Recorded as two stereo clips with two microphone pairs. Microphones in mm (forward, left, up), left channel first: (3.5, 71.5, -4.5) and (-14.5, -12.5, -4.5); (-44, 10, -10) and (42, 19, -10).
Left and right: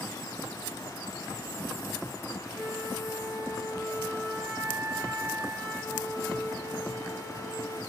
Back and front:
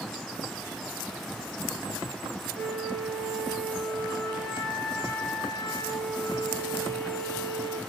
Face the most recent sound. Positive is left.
turn(degrees=145)